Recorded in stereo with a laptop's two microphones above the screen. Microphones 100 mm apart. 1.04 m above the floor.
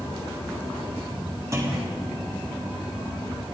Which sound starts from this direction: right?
A clunk, at 1.5 s.